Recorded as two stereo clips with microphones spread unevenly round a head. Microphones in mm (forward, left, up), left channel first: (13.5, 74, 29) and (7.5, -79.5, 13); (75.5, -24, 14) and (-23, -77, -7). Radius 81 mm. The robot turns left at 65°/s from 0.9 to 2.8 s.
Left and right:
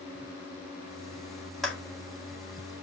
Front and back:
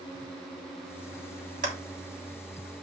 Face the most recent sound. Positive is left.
turn(degrees=100)